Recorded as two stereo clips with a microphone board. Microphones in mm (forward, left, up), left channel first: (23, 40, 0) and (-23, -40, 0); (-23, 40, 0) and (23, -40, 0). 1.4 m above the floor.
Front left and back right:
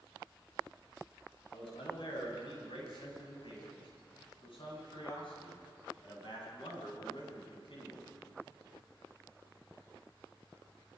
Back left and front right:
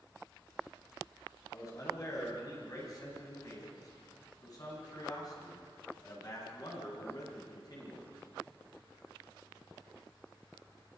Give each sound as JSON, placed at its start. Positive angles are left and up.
{"t": 1.5, "sound": "a man speaking", "azimuth_deg": 70, "distance_m": 9.5}